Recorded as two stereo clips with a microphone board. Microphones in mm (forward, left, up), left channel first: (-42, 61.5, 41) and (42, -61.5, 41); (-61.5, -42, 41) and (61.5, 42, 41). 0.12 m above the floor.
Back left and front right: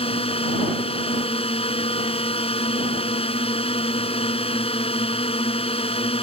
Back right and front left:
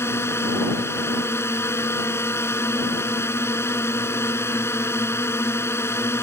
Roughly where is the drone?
Behind left.